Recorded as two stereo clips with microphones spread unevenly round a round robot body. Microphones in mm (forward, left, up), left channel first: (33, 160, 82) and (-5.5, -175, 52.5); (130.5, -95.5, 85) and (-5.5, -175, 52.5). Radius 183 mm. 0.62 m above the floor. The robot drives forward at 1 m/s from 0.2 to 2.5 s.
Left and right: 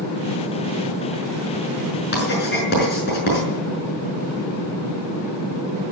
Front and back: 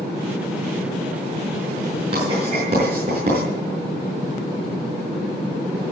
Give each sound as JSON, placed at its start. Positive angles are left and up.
{"t": 2.1, "sound": "writing", "azimuth_deg": 145, "distance_m": 5.5}